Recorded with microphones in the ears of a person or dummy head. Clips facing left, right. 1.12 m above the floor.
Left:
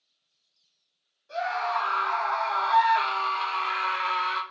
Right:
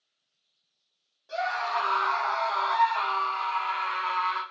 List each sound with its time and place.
1.3 s a scream: 55° right (ahead or behind), 1.0 m; by 4.4 s 65° left (ahead or behind), 1.1 m